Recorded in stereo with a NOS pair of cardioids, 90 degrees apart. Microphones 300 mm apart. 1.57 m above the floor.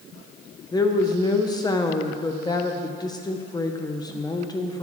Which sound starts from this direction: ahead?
A woman speaking, at 0.7 s.